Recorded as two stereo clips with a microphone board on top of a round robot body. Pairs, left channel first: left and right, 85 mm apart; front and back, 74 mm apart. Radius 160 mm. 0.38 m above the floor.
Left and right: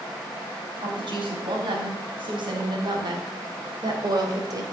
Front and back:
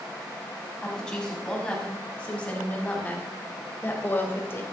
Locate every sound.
0.8 s a woman speaking: 80° right, 5 m; by 4.6 s 55° right, 3 m